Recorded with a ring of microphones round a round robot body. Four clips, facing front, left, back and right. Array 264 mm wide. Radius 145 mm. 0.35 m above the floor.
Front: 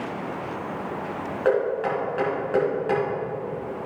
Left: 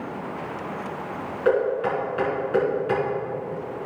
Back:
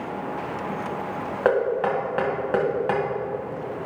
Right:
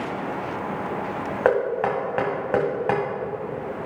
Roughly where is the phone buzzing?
No phone buzzing in this recording.